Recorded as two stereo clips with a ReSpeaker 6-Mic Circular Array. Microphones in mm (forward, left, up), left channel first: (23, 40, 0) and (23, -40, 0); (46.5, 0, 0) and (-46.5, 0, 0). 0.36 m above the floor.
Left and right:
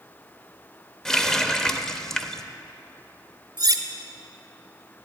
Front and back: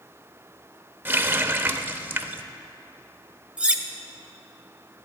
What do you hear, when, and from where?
1.1 s a running tap: 165° left, 0.5 m
3.6 s cutlery clinking: 105° right, 0.7 m